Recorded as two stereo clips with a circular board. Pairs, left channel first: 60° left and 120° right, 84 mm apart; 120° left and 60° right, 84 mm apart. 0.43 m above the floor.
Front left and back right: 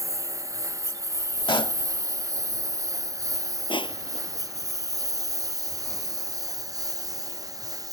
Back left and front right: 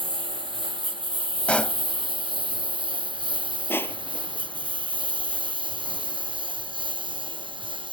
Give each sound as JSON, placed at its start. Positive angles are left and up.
{"t": 0.0, "sound": "a lawn mower", "azimuth_deg": -70}
{"t": 1.5, "sound": "a pop", "azimuth_deg": 45}
{"t": 3.7, "sound": "crushing", "azimuth_deg": 55}